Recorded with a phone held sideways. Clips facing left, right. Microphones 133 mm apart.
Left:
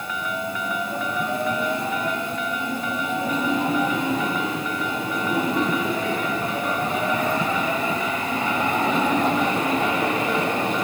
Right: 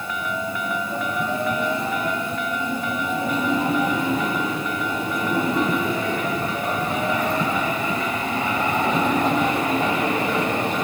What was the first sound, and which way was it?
Only background noise.